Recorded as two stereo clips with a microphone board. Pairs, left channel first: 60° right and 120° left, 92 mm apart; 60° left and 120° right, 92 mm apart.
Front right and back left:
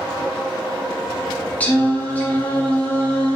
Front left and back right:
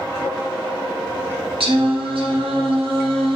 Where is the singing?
135° right, 1.4 m.